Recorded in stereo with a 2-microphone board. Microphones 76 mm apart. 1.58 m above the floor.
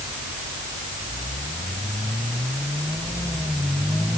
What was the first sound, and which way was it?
Only background noise.